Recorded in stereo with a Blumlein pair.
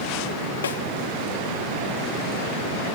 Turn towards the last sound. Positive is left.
turn(degrees=65)